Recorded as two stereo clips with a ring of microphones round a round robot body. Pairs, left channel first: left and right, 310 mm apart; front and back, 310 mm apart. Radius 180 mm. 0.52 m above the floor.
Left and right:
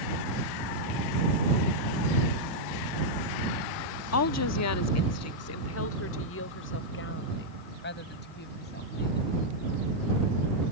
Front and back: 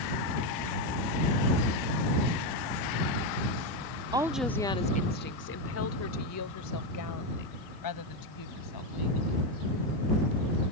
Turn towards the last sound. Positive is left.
turn(degrees=25)